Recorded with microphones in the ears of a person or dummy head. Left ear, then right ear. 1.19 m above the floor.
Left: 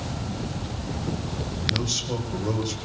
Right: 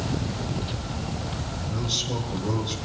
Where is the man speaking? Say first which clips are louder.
Left 2 dB; 85° left, 5.5 m.